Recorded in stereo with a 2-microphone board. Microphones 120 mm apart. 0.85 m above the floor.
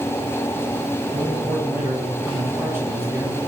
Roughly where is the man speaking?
Right.